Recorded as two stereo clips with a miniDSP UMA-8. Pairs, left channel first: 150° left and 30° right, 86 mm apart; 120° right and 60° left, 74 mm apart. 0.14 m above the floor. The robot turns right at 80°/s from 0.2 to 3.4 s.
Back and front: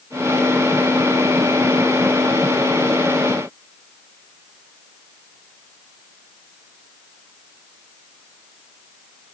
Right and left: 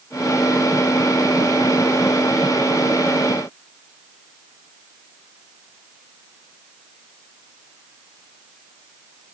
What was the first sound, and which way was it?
Only background noise.